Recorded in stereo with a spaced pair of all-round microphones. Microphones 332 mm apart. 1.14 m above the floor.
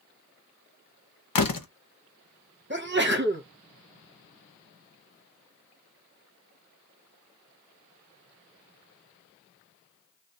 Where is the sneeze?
35° right (ahead or behind), 1.1 m.